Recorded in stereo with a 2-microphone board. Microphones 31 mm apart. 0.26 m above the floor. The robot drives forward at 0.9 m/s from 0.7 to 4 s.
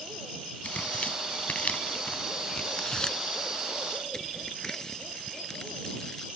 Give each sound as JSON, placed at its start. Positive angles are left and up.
{"t": 0.6, "sound": "tearing paper", "side_deg": 45}